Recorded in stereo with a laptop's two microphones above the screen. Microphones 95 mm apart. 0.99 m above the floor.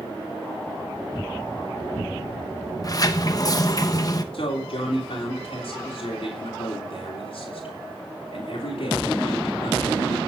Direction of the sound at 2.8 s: 40° left (ahead or behind).